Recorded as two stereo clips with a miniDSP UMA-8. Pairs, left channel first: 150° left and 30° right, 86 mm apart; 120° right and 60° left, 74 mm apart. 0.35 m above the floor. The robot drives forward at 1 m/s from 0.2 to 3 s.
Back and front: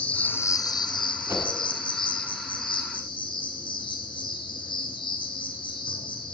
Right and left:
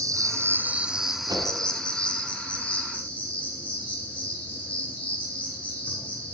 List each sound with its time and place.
0.0 s an insect: 80° left, 0.7 m; by 6.3 s 170° left, 3 m
1.3 s a whoosh: 30° left, 2.5 m